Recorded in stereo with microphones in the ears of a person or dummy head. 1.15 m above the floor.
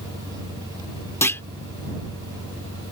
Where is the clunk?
10° left (ahead or behind).